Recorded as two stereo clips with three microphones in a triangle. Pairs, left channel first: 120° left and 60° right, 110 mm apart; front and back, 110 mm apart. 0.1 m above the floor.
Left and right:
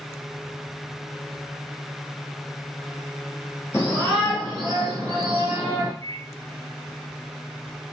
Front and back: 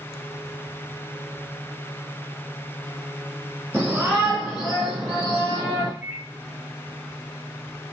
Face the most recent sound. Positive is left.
turn(degrees=130)